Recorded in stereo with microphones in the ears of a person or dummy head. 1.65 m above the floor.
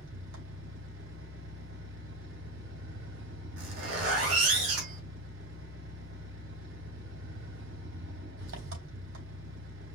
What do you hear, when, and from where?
0.0 s an engine running: 70° right (ahead or behind), 4 m
3.6 s a zipper: 70° right (ahead or behind), 2 m